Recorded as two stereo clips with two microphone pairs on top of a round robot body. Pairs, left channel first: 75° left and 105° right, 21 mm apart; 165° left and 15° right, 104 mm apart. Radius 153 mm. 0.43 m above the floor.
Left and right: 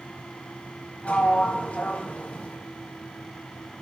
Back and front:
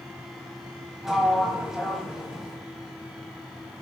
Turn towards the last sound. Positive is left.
turn(degrees=75)